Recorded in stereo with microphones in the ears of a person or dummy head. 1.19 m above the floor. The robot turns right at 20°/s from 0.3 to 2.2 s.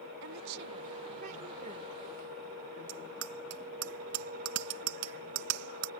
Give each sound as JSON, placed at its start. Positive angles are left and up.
{"t": 0.2, "sound": "a woman speaking", "azimuth_deg": -60}
{"t": 2.9, "sound": "a bicycle bell", "side_deg": -90}